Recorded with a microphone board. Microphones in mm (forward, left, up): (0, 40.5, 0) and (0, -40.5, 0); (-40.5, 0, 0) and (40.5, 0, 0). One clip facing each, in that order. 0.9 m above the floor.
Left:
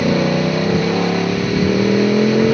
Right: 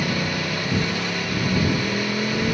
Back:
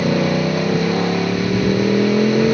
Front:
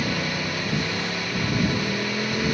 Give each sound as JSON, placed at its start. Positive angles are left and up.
{"t": 0.0, "sound": "a motorcycle", "azimuth_deg": 135}